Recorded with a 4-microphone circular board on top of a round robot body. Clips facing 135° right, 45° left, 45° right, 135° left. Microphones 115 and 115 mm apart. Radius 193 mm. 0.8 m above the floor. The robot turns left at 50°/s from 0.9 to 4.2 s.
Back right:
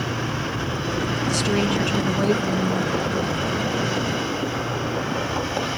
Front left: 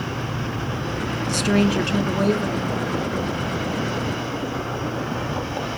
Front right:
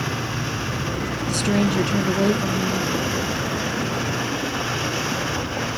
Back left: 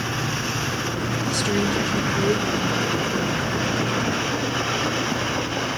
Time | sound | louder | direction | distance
1.3 | a woman speaking | front left 4 dB, front right 3 dB | 5° left | 2 m